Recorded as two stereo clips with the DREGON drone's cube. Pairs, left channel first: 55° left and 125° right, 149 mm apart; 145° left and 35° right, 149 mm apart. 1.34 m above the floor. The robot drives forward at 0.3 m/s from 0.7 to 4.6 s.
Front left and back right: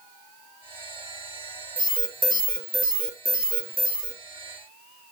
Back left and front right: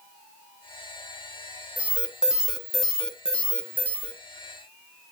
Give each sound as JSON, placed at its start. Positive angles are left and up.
{"t": 1.8, "sound": "an alarm", "azimuth_deg": -115, "distance_m": 1.3}